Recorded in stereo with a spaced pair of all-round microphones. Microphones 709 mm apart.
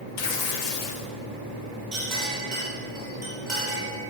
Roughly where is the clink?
Right.